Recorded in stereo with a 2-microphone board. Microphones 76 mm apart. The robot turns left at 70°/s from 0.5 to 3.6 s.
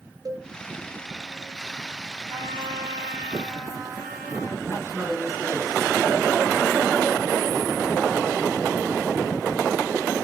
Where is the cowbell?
50° right (ahead or behind), 2 m.